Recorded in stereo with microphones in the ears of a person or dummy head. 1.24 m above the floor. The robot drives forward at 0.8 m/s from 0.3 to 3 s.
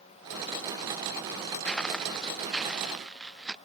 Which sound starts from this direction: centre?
Footsteps, at 1.6 s.